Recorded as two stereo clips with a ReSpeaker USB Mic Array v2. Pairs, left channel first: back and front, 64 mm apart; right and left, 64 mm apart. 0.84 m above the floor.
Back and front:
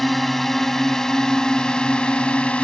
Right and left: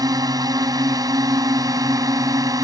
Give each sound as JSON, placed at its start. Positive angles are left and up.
{"t": 0.0, "sound": "a drone", "azimuth_deg": 90}